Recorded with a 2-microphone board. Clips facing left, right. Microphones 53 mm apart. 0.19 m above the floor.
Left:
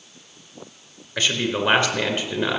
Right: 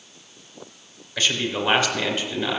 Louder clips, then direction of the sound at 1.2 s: Left 1 dB; 35° left (ahead or behind).